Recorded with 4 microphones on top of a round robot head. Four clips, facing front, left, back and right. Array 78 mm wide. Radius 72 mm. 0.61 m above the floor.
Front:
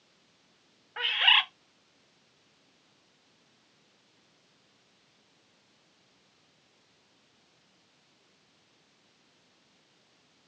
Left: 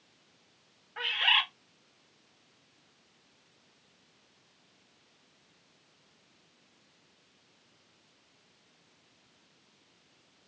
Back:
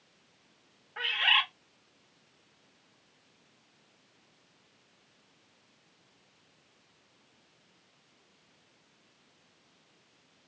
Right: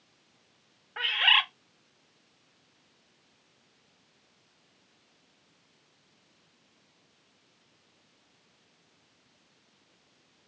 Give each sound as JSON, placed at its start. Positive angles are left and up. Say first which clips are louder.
{"t": 1.0, "sound": "a bird", "louder": "right 3 dB, front 2 dB", "azimuth_deg": -50, "distance_m": 0.9}